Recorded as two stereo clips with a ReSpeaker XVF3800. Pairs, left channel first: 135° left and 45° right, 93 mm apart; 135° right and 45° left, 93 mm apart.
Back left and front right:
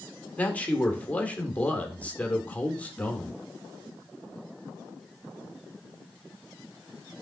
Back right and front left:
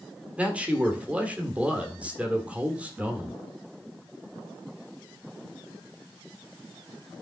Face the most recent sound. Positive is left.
turn(degrees=95)